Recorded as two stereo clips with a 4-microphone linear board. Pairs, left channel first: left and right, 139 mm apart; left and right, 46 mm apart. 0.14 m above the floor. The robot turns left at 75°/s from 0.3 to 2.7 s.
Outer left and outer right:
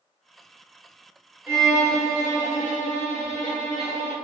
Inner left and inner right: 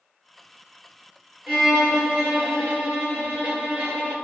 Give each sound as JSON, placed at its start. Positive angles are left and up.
{"t": 1.5, "sound": "a violin", "azimuth_deg": -15, "distance_m": 1.8}